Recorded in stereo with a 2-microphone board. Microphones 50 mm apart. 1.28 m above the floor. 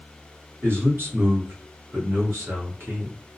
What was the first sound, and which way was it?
A man speaking, 50° right (ahead or behind).